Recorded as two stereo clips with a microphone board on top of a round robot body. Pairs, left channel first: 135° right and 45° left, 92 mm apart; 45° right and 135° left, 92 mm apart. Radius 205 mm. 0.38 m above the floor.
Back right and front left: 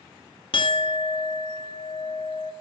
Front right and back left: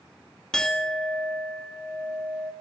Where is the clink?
130° right, 0.5 m.